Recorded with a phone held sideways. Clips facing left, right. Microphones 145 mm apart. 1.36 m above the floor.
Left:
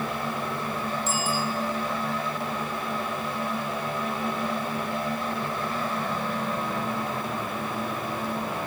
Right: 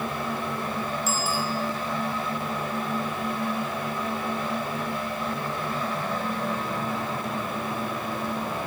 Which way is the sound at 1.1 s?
10° right (ahead or behind).